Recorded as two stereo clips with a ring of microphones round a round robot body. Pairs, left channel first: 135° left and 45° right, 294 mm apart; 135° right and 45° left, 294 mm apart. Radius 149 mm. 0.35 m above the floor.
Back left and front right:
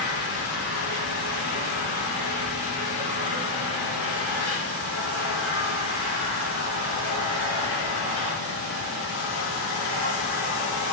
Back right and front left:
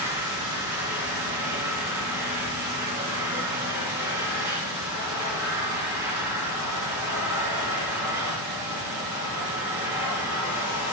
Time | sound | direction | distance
0.0 | an engine running | 35° right | 6 m